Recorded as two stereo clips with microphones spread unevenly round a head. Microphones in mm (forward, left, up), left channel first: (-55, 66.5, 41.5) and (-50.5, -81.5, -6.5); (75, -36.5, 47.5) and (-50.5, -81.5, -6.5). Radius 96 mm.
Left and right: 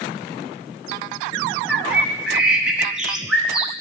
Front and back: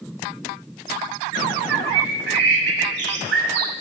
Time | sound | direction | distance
1.7 | a bird | 175° left | 0.9 m